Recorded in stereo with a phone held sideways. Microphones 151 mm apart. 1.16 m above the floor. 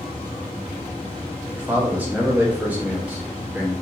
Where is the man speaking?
10° right (ahead or behind), 0.7 m.